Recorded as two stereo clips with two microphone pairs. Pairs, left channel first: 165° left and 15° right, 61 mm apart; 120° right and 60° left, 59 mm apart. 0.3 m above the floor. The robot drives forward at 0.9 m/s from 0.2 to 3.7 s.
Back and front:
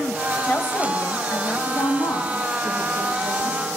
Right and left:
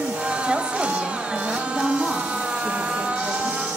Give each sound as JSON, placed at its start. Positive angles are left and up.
{"t": 0.4, "sound": "a woman speaking", "azimuth_deg": 120, "distance_m": 1.1}